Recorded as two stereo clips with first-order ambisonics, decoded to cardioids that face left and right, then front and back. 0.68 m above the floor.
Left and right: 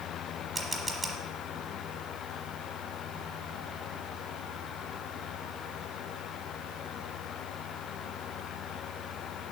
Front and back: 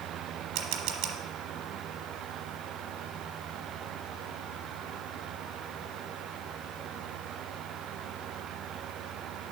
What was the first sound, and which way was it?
A camera shutter, straight behind.